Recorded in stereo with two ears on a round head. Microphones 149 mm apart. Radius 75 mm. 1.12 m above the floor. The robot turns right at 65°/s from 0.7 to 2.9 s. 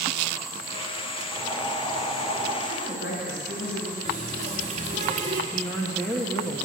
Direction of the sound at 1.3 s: 10° right.